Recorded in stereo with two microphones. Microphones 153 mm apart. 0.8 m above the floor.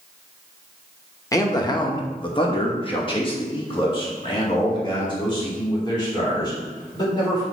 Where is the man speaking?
20° left (ahead or behind), 1.0 m; by 7.4 s 30° left (ahead or behind), 3.5 m.